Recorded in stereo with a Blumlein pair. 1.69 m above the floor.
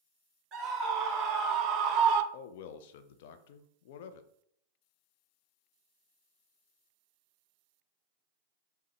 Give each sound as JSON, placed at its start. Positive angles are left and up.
{"t": 0.5, "sound": "a scream", "azimuth_deg": -25, "distance_m": 1.6}
{"t": 2.3, "sound": "a man speaking", "azimuth_deg": 50, "distance_m": 0.5}